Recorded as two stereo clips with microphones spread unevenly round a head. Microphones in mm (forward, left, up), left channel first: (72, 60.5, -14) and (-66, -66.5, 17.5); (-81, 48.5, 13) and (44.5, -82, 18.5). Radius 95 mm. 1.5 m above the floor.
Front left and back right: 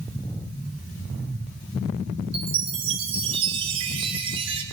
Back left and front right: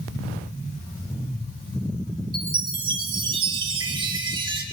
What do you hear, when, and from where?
2.3 s a chime: 100° right, 1.1 m